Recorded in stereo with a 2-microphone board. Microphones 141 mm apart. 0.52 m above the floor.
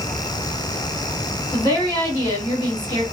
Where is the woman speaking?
30° left (ahead or behind), 1.4 m.